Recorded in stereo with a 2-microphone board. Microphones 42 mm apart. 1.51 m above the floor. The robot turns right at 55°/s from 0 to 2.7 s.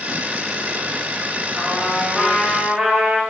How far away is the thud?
No thud in this recording.